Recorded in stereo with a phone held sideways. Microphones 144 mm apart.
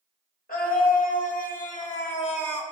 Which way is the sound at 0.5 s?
75° left (ahead or behind).